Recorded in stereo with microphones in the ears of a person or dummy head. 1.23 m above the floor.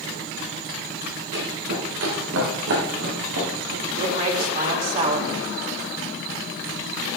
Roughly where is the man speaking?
Right.